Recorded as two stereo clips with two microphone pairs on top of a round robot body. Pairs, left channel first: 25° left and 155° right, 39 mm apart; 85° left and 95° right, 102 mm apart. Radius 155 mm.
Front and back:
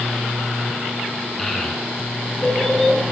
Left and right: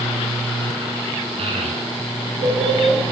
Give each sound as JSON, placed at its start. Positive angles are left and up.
{"t": 1.4, "sound": "a child speaking", "azimuth_deg": -60, "distance_m": 6.0}